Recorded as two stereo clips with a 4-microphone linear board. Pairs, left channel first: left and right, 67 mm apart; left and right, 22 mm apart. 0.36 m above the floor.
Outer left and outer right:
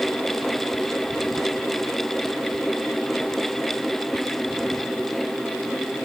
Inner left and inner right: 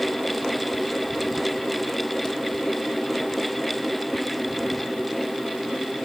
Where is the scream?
No scream in this recording.